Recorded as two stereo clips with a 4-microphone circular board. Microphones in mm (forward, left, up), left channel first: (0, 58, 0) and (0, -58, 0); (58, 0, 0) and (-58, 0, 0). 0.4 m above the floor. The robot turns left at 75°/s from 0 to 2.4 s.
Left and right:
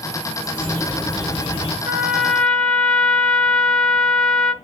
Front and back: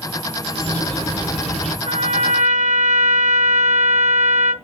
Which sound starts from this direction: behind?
A bird, at 0.4 s.